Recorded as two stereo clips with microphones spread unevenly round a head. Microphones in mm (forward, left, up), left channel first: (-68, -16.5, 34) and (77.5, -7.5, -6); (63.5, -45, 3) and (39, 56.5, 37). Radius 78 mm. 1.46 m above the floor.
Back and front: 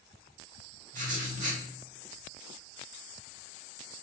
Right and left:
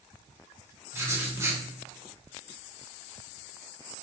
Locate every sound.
0.9 s writing: 35° left, 0.8 m